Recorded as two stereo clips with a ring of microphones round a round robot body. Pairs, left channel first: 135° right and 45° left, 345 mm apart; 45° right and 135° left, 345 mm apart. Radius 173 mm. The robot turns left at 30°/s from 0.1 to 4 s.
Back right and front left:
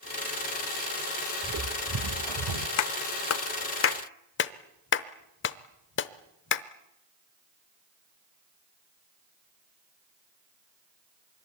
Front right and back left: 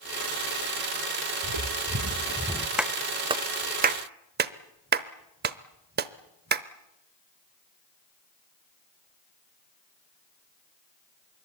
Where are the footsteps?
105° left, 2.5 m; by 2.7 s 35° left, 1.3 m.